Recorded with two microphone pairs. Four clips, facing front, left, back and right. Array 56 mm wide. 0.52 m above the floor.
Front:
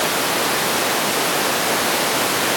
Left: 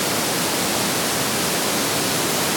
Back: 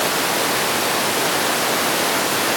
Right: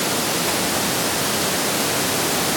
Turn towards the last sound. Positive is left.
No sound to turn to.